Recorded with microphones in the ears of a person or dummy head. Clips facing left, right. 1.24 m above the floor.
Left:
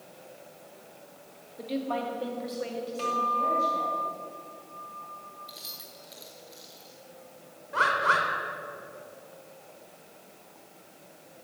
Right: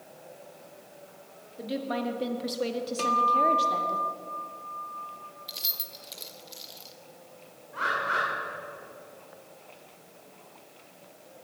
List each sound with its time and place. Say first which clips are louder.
1.6 s a woman speaking: even; 5° right (ahead or behind), 2 m; by 4.0 s 85° right, 2.5 m
3.0 s a guitar: right 5 dB; 60° right (ahead or behind), 1.9 m
5.5 s keys jangling: right 1 dB; 35° right (ahead or behind), 1.1 m
7.7 s a bird: left 4 dB; 70° left (ahead or behind), 3 m